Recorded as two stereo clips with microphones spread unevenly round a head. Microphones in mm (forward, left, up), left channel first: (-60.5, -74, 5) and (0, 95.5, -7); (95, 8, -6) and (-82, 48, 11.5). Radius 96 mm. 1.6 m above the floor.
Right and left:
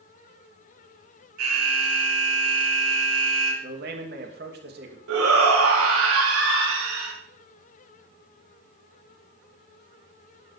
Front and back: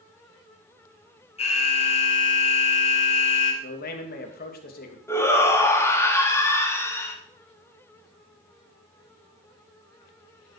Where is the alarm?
45° left, 4.5 m.